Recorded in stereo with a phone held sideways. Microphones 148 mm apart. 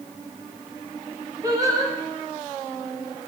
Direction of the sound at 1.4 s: 25° right (ahead or behind).